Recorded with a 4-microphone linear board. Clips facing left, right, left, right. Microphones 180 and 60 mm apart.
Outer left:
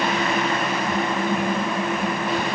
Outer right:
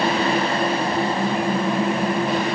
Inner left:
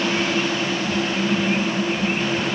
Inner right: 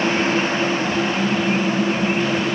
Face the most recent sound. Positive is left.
No sound to turn to.